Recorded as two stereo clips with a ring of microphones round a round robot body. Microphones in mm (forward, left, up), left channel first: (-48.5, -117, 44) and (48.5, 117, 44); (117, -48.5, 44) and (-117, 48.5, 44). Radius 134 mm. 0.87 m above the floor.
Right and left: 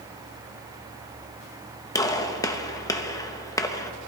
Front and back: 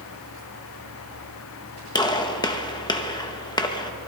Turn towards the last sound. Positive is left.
turn(degrees=-60)